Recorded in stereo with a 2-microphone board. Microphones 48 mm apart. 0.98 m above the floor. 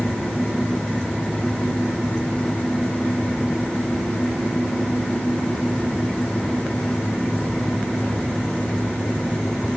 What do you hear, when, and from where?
Only background noise.